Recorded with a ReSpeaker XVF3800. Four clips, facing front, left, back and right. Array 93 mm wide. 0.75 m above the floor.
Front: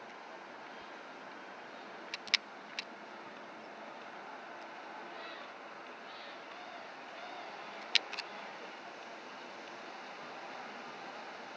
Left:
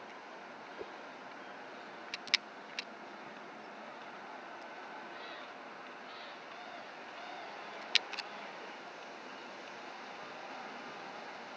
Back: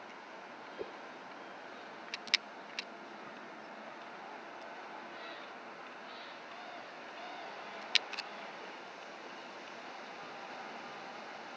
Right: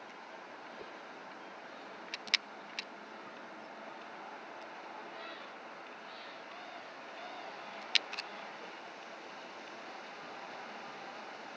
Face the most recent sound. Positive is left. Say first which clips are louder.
# left 5 dB, back 6 dB
turn(degrees=160)